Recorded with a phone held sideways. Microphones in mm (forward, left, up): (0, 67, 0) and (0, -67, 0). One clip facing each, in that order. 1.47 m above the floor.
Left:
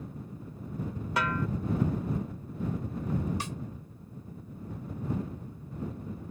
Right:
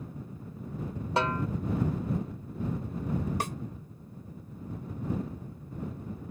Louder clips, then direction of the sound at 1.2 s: Right 2 dB; 30° right (ahead or behind).